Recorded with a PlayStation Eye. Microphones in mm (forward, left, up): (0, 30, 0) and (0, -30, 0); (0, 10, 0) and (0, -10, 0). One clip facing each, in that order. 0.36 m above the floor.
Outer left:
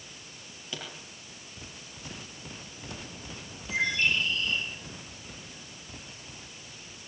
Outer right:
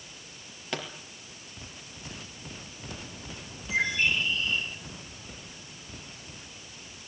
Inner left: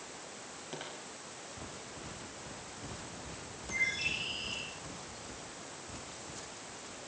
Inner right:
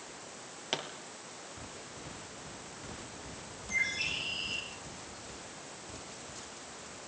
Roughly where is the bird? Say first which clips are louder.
Outer right 1 dB, inner right 1 dB; centre.